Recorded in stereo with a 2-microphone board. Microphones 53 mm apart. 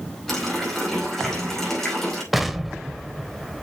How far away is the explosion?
About 0.9 m.